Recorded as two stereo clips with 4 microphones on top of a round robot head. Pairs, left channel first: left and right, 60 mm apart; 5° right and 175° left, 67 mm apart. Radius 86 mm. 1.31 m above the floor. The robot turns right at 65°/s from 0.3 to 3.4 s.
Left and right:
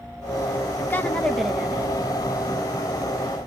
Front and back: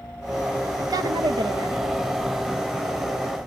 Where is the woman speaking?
140° left, 0.8 m; by 1.9 s 150° right, 0.8 m.